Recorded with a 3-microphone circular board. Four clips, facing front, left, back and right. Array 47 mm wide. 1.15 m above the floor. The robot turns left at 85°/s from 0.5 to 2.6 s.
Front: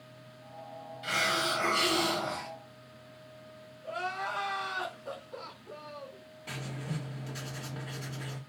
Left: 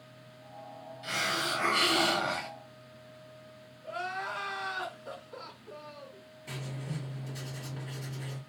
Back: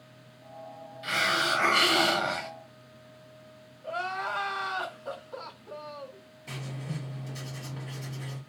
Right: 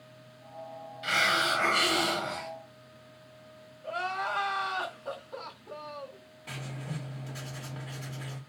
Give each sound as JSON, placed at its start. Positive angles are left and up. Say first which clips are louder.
{"t": 1.0, "sound": "a hiss", "louder": "right 6 dB, back 3 dB", "azimuth_deg": -105, "distance_m": 0.8}
{"t": 3.8, "sound": "crying", "louder": "right 4 dB, back 3 dB", "azimuth_deg": -110, "distance_m": 1.5}
{"t": 6.5, "sound": "writing", "louder": "right 1 dB, even", "azimuth_deg": -45, "distance_m": 2.5}